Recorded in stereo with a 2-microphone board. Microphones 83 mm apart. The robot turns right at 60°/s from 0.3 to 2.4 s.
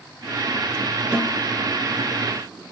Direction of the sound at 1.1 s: 10° right (ahead or behind).